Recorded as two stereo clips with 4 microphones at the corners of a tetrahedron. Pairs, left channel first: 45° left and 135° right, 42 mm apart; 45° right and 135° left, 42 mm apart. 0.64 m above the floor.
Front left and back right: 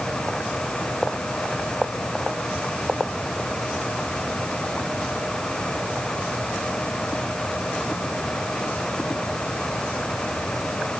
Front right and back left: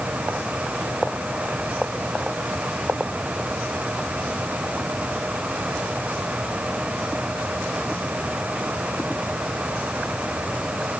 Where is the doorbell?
No doorbell in this recording.